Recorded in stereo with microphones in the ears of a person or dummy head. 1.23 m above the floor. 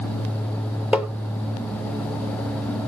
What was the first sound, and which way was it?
Tapping, 5° right (ahead or behind).